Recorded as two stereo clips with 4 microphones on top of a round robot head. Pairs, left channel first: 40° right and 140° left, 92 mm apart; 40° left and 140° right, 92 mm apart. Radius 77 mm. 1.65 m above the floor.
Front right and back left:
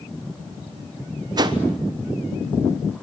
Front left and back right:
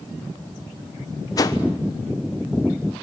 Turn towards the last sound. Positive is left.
turn(degrees=95)